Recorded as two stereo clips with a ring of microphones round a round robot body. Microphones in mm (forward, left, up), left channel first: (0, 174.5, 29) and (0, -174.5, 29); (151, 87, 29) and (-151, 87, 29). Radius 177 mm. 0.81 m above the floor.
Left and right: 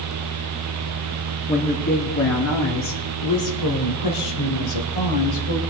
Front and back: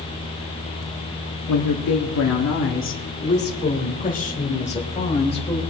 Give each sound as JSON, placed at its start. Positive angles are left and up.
{"t": 1.5, "sound": "a woman speaking", "azimuth_deg": 20, "distance_m": 1.9}